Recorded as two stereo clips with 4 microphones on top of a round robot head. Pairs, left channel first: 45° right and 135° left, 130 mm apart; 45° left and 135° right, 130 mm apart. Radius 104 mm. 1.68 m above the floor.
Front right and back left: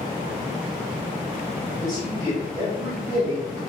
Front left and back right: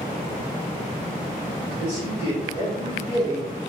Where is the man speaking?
145° right, 2 m; by 3.6 s 175° left, 2.0 m.